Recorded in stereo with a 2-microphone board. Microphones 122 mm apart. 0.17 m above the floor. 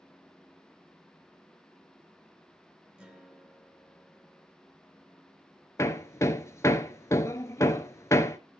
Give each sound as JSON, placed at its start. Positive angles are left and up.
{"t": 3.0, "sound": "a guitar", "side_deg": -10, "distance_m": 1.6}
{"t": 5.8, "sound": "hammering", "side_deg": 25, "distance_m": 0.7}